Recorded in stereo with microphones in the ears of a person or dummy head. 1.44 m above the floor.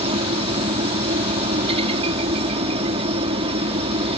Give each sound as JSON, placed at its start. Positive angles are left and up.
{"t": 0.0, "sound": "a helicopter", "side_deg": -30}